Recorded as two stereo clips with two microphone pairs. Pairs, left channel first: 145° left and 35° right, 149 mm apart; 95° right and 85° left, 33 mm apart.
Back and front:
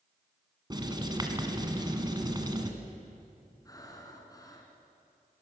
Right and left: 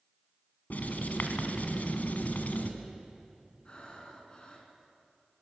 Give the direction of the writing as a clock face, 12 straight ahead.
3 o'clock.